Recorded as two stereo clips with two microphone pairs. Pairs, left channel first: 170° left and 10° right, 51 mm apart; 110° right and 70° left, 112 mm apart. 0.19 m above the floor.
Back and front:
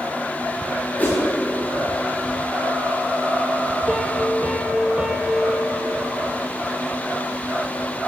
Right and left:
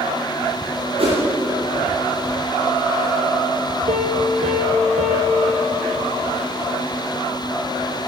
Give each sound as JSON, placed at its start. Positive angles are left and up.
{"t": 1.0, "sound": "a whoosh", "azimuth_deg": 110, "distance_m": 6.5}
{"t": 3.9, "sound": "a piano", "azimuth_deg": 65, "distance_m": 3.0}